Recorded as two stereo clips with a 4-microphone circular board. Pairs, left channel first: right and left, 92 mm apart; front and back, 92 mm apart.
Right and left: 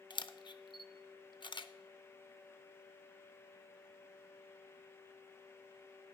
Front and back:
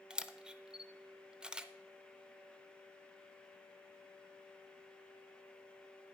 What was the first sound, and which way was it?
A camera shutter, 100° right.